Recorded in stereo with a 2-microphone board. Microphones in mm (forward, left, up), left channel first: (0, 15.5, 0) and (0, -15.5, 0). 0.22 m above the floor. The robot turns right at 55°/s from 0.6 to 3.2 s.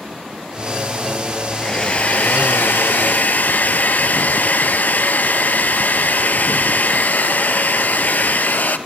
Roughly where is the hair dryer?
Ahead.